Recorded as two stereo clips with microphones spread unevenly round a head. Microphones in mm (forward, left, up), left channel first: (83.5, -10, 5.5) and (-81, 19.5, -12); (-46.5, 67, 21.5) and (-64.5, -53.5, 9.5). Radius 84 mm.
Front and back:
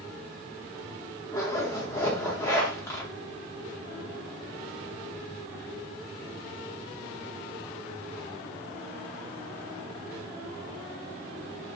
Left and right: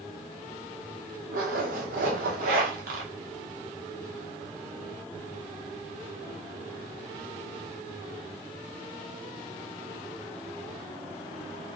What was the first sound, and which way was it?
A zipper, 85° right.